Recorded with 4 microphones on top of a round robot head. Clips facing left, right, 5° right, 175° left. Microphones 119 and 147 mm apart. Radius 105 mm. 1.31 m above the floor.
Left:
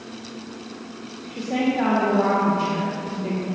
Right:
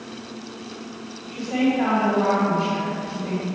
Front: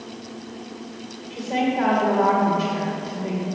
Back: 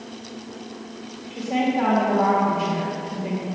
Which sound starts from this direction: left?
A woman speaking, at 1.3 s.